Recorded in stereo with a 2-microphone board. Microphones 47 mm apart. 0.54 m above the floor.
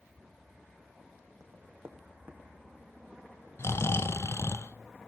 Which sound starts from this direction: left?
Snoring, at 3.6 s.